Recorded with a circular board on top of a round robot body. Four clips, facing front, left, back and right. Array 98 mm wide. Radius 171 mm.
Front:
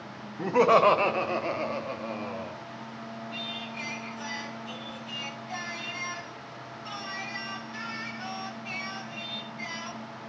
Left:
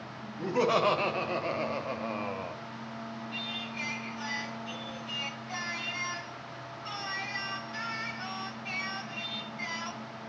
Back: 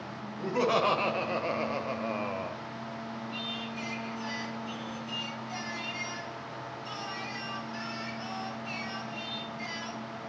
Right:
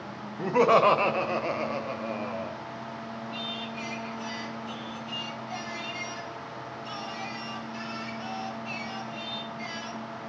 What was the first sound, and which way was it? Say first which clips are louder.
Laughter: right 6 dB, front 7 dB; 45° right.